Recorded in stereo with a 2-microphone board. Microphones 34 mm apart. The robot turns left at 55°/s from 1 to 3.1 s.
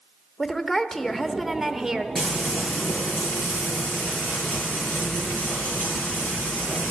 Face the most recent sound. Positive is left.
turn(degrees=115)